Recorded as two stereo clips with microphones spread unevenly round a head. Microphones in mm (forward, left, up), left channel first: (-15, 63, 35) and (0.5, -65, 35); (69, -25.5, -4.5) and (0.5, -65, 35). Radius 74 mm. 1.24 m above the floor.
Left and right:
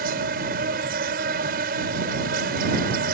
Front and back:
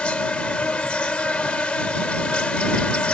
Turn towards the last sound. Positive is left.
turn(degrees=-55)